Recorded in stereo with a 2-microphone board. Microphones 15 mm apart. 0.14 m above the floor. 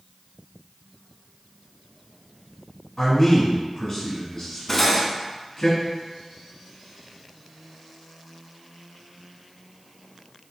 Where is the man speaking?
15° left (ahead or behind), 1.2 m.